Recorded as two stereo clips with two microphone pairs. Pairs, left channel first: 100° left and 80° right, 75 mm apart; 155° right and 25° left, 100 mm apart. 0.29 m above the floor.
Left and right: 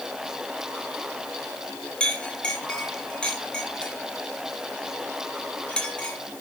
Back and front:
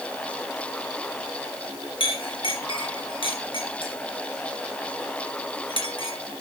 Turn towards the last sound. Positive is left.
turn(degrees=175)